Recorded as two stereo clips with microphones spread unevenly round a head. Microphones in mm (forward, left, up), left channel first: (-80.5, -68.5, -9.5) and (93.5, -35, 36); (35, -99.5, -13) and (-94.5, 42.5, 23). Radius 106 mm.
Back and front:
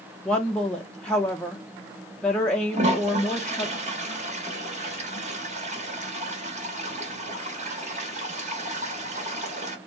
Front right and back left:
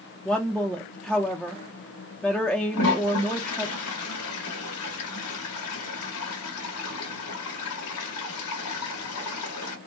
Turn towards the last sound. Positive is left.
turn(degrees=-35)